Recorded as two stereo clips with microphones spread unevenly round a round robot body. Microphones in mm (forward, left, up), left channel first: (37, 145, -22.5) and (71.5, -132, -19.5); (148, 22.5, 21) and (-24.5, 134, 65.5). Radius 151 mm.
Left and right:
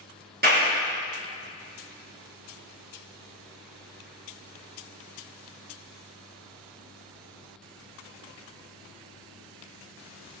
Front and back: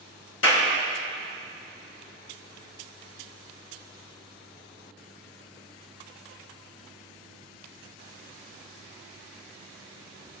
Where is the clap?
30° right, 4 m.